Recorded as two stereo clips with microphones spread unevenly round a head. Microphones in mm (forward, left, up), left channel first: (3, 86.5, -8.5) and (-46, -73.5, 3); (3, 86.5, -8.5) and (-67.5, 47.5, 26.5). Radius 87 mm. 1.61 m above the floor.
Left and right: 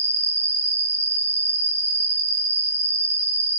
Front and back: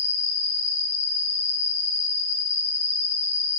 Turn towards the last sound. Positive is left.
turn(degrees=-35)